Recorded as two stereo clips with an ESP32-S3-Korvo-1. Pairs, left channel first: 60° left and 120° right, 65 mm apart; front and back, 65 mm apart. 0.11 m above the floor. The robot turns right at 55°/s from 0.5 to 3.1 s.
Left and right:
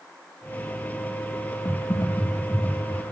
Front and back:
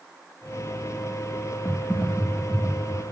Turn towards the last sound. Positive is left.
turn(degrees=150)